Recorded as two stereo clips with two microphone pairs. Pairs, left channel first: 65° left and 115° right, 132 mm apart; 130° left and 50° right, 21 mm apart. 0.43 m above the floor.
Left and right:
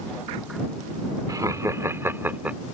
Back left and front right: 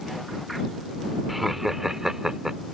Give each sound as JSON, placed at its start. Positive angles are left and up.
{"t": 1.3, "sound": "laughter", "azimuth_deg": -125}